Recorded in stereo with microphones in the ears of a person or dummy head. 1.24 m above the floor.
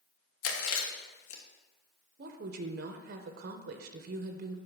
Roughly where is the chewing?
Left.